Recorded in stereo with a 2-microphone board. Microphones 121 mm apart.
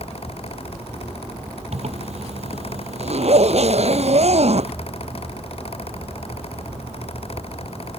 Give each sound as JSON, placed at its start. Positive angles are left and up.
{"t": 1.7, "sound": "a zipper", "side_deg": -60}